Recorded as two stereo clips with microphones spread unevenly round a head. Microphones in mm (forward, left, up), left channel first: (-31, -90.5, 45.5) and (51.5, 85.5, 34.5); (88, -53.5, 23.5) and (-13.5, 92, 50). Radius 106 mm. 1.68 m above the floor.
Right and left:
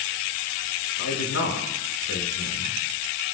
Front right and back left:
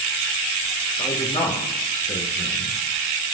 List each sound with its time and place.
1.0 s a man speaking: 120° right, 5.5 m